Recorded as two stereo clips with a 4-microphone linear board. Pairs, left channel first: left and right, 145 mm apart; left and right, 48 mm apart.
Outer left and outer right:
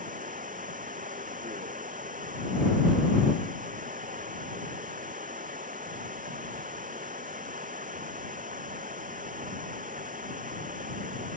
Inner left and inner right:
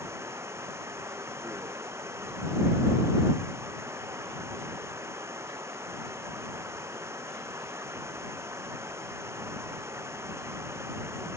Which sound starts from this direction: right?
Running water, at 0.0 s.